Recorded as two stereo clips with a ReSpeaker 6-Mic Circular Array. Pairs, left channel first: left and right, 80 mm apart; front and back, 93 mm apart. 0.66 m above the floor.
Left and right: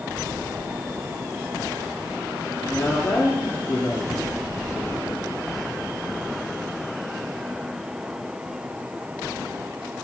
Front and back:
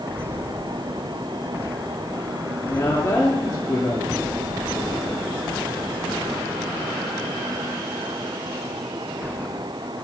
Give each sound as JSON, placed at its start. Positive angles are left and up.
{"t": 2.6, "sound": "a woman speaking", "azimuth_deg": 40, "distance_m": 1.2}